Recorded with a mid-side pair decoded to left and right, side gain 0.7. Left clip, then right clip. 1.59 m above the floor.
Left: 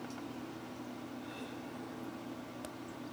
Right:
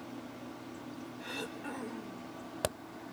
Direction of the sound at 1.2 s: 50° right.